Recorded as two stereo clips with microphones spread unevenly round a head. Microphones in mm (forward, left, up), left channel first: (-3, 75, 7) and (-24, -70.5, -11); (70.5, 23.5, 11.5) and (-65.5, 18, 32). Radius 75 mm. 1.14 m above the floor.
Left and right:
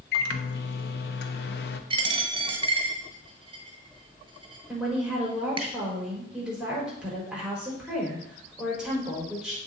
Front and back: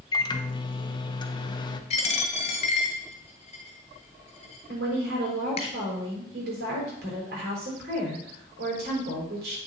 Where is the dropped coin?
45° right, 1.4 m.